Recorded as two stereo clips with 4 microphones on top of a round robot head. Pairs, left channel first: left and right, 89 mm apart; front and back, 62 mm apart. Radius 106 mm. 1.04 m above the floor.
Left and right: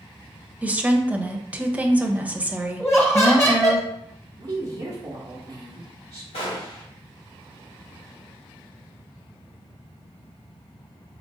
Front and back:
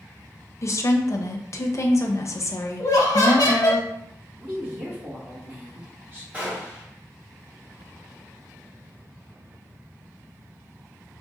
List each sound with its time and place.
0.6 s a woman speaking: 20° right, 0.7 m
2.8 s laughter: 25° left, 1.1 m
4.4 s a woman speaking: 130° right, 0.9 m
6.3 s a gunshot: 115° left, 1.1 m